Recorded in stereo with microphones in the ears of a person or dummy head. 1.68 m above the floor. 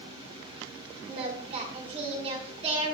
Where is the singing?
40° right (ahead or behind), 2.5 m.